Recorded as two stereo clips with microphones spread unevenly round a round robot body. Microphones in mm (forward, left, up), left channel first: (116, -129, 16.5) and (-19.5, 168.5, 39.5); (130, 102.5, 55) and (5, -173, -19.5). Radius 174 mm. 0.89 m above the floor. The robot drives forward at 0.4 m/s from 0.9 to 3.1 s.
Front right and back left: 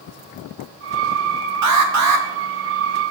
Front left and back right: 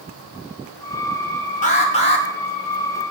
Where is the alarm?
140° left, 2.5 m; by 2.2 s 145° left, 2.5 m.